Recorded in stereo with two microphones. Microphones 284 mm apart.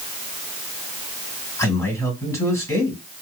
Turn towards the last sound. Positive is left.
turn(degrees=10)  # may be behind; listen again after turning